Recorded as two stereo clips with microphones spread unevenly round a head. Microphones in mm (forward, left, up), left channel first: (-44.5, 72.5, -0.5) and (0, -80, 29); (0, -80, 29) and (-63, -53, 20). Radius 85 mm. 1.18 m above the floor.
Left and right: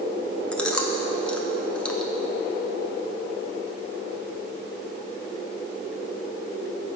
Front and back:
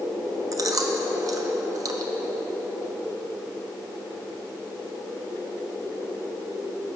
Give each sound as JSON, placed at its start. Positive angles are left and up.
{"t": 0.5, "sound": "chewing", "azimuth_deg": -175, "distance_m": 0.8}